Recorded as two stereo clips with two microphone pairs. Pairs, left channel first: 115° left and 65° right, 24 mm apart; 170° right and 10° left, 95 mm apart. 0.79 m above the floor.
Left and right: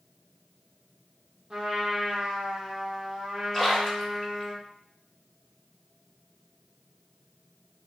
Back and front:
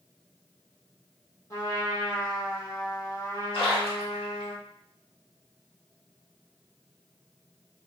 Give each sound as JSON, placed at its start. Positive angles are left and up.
{"t": 1.5, "sound": "a trumpet", "azimuth_deg": -125, "distance_m": 0.8}
{"t": 3.5, "sound": "a splash", "azimuth_deg": -170, "distance_m": 1.1}